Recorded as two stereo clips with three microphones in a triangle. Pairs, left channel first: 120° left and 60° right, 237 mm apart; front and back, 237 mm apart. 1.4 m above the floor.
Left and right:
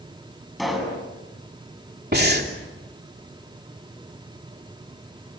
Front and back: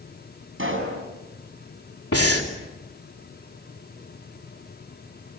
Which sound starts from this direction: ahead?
Breathing, at 2.1 s.